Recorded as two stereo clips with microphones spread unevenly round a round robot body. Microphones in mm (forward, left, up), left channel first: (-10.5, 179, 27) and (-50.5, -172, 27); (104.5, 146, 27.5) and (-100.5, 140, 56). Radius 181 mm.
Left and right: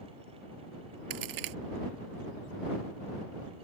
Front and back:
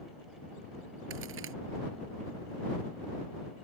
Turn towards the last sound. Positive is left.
turn(degrees=-130)